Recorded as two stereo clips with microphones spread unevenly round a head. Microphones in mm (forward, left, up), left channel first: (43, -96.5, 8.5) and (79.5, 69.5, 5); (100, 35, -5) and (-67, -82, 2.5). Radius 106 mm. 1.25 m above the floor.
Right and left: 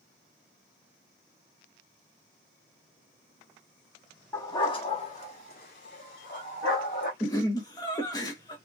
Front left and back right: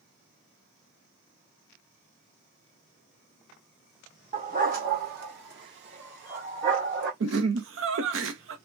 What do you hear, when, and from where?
4.3 s a dog barking: 175° right, 0.8 m; by 7.1 s 120° right, 2.0 m
7.2 s laughter: 175° right, 0.6 m